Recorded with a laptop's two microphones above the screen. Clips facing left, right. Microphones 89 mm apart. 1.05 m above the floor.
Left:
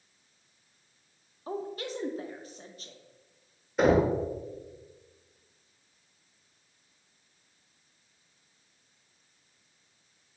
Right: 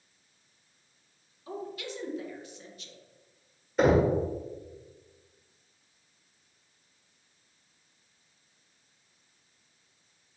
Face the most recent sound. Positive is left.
turn(degrees=0)  # may be behind; listen again after turning